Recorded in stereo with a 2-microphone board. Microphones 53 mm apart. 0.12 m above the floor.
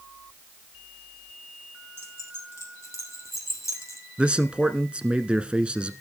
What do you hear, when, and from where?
2.0 s keys jangling: 55° left (ahead or behind), 3 m; by 4.0 s 70° left (ahead or behind), 3 m
4.2 s a man speaking: 20° right (ahead or behind), 1.1 m